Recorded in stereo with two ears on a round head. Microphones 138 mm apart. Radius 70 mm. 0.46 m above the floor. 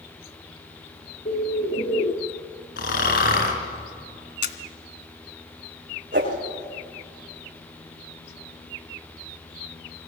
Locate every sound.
1.2 s a bird: 45° left (ahead or behind), 1.4 m
2.8 s snoring: 60° left (ahead or behind), 5 m
4.4 s a camera shutter: 65° left (ahead or behind), 1.8 m
6.1 s a whoosh: 55° right (ahead or behind), 8.5 m